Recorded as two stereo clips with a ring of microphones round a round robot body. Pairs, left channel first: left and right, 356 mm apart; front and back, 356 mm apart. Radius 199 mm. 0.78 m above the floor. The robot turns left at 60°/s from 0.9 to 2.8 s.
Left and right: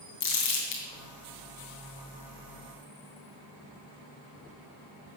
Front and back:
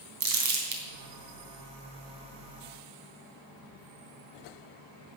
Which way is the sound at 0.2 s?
140° left.